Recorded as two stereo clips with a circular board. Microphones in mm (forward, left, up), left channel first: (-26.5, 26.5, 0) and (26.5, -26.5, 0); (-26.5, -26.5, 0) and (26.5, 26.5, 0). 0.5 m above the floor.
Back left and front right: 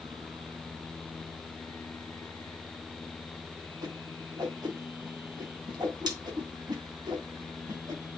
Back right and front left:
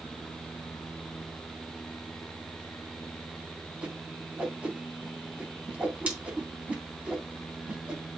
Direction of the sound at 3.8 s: 25° right.